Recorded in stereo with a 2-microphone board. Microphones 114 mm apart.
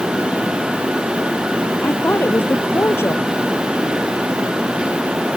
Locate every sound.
1.8 s a woman speaking: 20° left (ahead or behind)